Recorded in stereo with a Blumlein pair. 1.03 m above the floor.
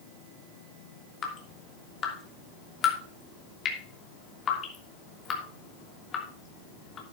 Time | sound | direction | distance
1.2 | dripping | 25° left | 3 m